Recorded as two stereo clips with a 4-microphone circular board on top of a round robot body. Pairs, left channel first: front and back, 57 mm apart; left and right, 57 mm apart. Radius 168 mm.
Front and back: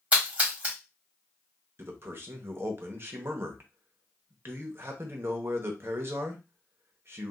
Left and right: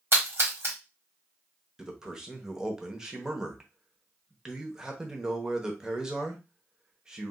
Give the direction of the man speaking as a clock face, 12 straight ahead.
6 o'clock.